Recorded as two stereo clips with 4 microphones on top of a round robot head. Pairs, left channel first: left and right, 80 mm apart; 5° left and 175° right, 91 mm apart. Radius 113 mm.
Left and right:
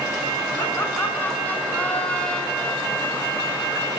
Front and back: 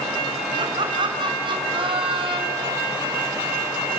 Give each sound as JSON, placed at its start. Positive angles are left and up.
{"t": 0.6, "sound": "laughter", "azimuth_deg": 155, "distance_m": 5.5}